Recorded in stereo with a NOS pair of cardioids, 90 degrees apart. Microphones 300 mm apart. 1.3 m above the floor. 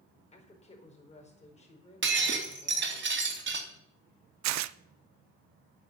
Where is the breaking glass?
40° right, 3 m.